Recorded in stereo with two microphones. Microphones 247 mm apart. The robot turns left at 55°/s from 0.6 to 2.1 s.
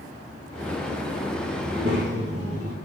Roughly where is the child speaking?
Right.